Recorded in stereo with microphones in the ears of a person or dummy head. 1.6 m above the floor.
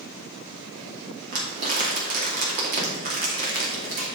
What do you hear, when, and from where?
1.3 s crumpling: 40° right (ahead or behind), 2.5 m